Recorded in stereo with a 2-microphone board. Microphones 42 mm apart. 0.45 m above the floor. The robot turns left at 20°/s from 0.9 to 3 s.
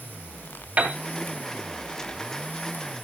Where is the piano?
30° right (ahead or behind), 2 m.